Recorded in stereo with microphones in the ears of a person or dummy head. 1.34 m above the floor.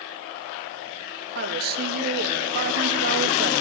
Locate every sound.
1.4 s a woman speaking: 55° right (ahead or behind), 0.7 m